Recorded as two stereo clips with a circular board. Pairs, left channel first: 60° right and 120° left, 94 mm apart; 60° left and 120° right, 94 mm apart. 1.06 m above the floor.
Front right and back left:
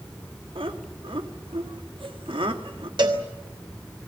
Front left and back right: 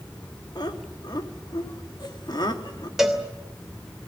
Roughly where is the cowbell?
Behind left.